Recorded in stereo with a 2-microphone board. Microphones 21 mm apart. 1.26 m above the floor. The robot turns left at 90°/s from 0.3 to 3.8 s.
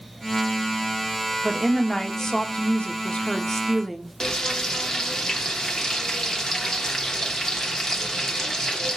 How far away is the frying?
About 0.9 m.